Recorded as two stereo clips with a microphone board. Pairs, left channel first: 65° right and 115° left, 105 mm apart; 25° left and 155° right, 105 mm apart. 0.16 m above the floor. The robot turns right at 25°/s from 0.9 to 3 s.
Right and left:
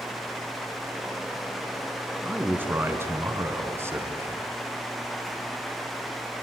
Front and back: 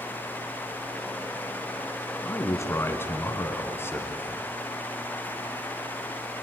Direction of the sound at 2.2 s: 50° left.